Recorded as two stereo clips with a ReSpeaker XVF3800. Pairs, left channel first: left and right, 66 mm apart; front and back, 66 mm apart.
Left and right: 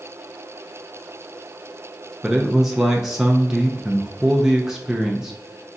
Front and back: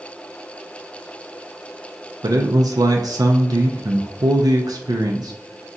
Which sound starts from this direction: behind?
A man speaking, at 2.2 s.